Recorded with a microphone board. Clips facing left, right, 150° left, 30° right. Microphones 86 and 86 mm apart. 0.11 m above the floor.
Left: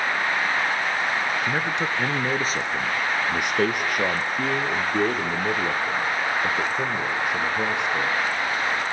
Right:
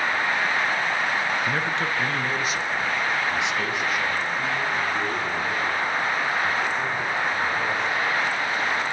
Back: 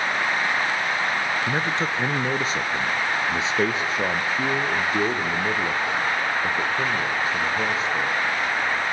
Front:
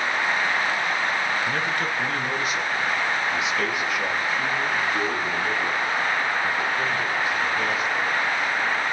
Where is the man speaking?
155° left, 1.1 m; by 8.2 s 90° left, 4.5 m.